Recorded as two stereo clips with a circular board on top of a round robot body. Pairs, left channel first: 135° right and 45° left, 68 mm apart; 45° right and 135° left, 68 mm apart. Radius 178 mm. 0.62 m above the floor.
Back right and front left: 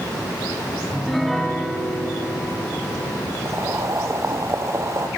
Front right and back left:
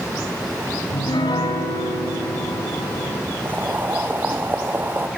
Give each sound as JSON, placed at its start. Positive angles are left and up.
{"t": 0.9, "sound": "a piano", "azimuth_deg": -45, "distance_m": 3.0}
{"t": 3.5, "sound": "boiling", "azimuth_deg": 80, "distance_m": 1.7}